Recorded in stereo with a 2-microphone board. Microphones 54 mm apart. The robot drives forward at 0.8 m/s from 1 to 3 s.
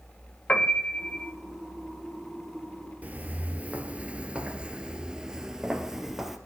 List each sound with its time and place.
0.5 s a piano: 25° left (ahead or behind), 1.4 m; by 1.3 s 20° left (ahead or behind), 1.6 m
3.0 s footsteps: 30° right (ahead or behind), 1.6 m; by 6.4 s 5° right (ahead or behind), 1.8 m